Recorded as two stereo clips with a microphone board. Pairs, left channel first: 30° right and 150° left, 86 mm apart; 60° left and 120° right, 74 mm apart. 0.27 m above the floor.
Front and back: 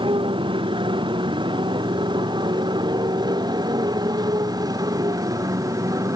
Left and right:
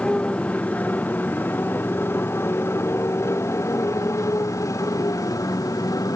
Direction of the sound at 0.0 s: 135° left.